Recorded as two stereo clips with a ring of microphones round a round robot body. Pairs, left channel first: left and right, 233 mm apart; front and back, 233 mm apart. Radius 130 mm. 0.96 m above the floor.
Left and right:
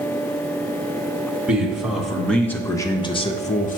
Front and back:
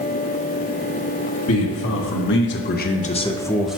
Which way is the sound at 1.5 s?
5° right.